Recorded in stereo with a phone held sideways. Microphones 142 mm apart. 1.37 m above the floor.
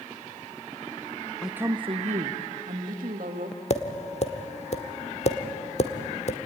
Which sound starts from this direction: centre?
A woman speaking, at 1.4 s.